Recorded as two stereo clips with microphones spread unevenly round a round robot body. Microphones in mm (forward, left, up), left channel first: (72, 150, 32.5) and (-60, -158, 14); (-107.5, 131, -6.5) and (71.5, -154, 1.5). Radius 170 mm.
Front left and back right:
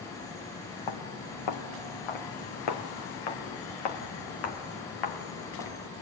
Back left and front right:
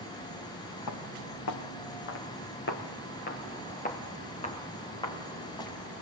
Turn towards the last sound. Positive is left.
turn(degrees=40)